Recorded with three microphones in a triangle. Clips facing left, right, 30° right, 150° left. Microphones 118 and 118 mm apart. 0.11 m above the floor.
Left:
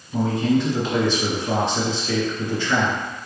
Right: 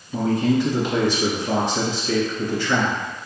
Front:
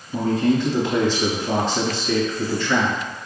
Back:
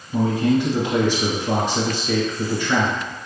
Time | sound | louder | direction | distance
0.1 | a man speaking | even, back 1 dB | 160° right | 1.5 m